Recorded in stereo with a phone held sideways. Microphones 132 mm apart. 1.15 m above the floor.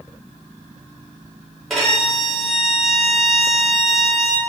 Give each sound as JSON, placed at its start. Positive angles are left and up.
{"t": 1.7, "sound": "a violin", "side_deg": 0, "distance_m": 1.0}